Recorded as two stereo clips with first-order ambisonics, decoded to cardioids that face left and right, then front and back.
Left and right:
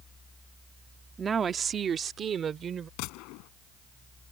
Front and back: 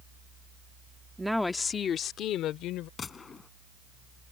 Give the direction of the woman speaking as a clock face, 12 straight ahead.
4 o'clock.